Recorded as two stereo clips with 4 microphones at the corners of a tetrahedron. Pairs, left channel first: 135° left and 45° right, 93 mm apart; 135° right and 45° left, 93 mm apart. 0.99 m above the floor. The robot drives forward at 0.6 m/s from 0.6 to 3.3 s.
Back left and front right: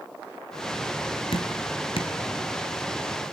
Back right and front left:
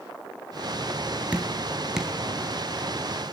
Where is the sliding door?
No sliding door in this recording.